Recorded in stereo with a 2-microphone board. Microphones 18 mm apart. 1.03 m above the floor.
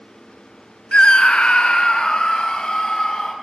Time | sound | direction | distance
0.9 | a scream | 60° left (ahead or behind) | 0.7 m